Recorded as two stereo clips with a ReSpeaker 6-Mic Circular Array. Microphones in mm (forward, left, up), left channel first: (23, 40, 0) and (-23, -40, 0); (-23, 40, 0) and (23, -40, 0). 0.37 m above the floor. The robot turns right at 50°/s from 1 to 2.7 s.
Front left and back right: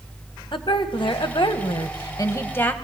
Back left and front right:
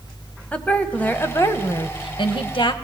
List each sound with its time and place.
0.5 s a woman speaking: 45° left, 1.7 m; by 2.7 s 130° left, 1.7 m